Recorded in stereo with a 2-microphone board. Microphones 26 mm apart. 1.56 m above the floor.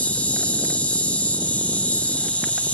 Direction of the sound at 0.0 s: 80° left.